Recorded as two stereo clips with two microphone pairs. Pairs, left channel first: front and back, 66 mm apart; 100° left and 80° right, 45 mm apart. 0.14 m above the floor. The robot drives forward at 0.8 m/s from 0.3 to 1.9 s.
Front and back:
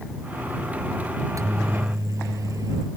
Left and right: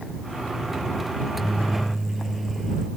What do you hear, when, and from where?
1.2 s a microwave: 165° right; by 2.9 s 170° right